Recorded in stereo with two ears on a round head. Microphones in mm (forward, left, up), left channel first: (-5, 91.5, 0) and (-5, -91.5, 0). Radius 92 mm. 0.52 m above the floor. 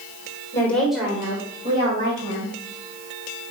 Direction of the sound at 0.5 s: 15° left (ahead or behind).